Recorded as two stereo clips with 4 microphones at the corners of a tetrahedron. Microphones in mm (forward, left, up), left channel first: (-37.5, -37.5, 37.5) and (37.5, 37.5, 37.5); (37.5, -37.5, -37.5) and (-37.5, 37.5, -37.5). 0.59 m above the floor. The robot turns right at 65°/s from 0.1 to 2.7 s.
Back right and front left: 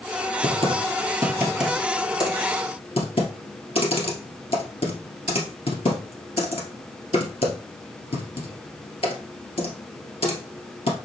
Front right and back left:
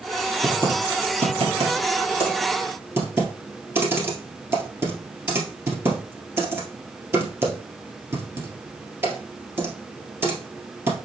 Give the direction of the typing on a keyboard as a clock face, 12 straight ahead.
10 o'clock.